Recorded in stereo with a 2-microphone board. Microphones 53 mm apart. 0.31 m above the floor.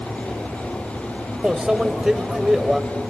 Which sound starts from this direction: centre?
A microwave, at 1.4 s.